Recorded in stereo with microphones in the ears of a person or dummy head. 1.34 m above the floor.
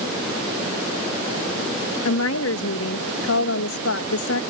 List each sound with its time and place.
2.0 s a woman speaking: 70° left (ahead or behind)